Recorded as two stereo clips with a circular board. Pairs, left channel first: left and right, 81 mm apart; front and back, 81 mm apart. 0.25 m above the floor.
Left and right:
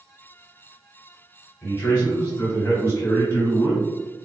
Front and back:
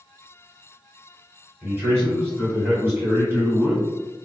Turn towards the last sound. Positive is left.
turn(degrees=130)